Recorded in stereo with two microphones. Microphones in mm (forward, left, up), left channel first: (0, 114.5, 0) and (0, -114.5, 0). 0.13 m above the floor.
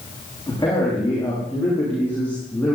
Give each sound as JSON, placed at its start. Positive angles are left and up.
{"t": 0.5, "sound": "a man speaking", "side_deg": 15, "distance_m": 8.5}